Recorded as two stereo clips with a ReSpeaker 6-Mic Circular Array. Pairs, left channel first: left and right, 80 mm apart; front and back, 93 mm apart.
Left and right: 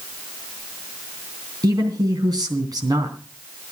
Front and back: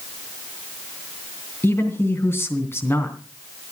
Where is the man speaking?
60° right, 3 m.